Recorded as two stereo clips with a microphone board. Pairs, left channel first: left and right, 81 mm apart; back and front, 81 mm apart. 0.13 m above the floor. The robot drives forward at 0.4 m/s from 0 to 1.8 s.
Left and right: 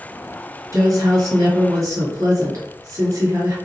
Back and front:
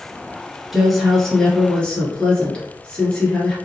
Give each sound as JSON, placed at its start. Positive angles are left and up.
{"t": 0.7, "sound": "a woman speaking", "azimuth_deg": -85, "distance_m": 1.5}